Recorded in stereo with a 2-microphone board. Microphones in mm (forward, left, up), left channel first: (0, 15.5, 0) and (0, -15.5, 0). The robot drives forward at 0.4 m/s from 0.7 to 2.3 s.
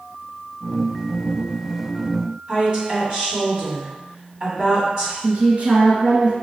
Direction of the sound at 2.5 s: 30° right (ahead or behind).